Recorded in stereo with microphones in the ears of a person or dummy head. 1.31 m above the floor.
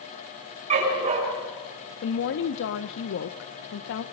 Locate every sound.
0.7 s a dog barking: 35° right (ahead or behind), 6 m
2.0 s a woman speaking: 70° left (ahead or behind), 0.8 m